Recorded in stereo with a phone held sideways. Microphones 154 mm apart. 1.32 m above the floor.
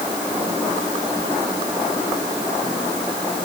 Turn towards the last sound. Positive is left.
No sound to turn to.